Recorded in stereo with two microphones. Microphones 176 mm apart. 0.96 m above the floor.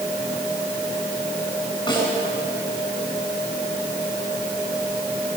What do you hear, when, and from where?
1.9 s a snare drum: 25° left (ahead or behind), 10 m